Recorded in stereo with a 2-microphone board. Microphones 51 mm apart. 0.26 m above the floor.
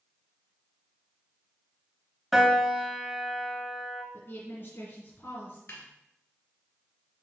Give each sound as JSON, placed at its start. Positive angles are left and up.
{"t": 2.3, "sound": "a piano", "side_deg": 0, "distance_m": 0.9}
{"t": 4.1, "sound": "a woman speaking", "side_deg": 50, "distance_m": 3.0}
{"t": 5.7, "sound": "a snare drum", "side_deg": 65, "distance_m": 1.8}